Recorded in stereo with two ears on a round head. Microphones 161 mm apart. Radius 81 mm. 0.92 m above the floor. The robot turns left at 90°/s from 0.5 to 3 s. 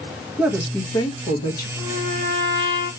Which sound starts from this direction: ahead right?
A trumpet, at 1.8 s.